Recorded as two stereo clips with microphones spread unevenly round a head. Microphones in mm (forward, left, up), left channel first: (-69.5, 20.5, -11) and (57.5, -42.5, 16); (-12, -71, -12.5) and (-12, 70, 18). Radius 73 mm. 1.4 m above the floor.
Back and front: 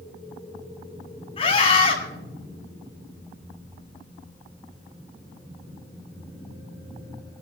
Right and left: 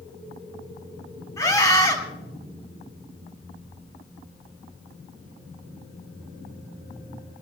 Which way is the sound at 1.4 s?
155° right.